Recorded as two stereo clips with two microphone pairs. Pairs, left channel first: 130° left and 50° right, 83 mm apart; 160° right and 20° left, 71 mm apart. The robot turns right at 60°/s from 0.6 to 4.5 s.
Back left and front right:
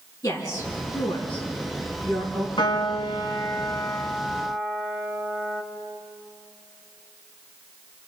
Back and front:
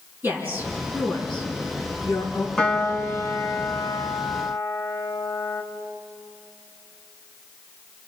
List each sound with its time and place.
0.2 s a woman speaking: 85° left, 7 m; by 2.5 s 165° right, 7 m
2.6 s a piano: 120° left, 2.5 m; by 5.6 s 120° right, 2.5 m